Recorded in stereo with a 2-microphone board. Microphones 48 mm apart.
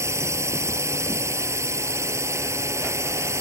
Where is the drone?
80° right.